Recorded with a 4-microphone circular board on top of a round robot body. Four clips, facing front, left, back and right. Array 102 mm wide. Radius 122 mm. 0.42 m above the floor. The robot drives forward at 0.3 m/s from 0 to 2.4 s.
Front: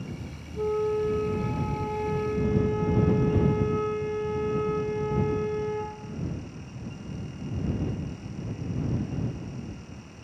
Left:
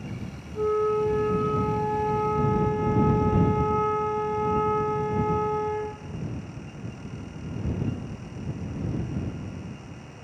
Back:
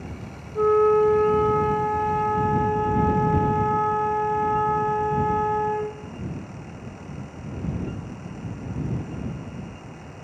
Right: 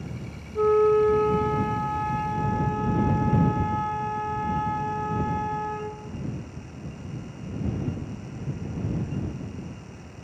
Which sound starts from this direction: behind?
A flute, at 0.6 s.